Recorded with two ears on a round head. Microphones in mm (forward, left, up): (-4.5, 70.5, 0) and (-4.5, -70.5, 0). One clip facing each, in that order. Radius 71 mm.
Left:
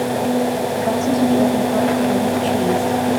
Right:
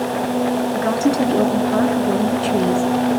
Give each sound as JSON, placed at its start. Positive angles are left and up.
{"t": 0.7, "sound": "a woman speaking", "side_deg": -75, "distance_m": 6.5}